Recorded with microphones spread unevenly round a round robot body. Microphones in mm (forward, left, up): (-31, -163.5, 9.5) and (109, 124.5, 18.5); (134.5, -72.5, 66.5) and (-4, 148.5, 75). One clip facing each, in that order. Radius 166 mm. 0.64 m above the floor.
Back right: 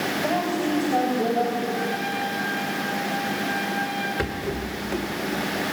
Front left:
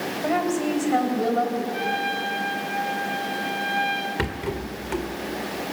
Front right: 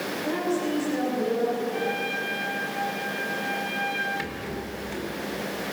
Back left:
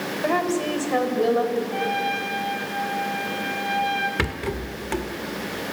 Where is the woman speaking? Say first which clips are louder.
Front left 3 dB, back left 3 dB; 120° left, 4 m.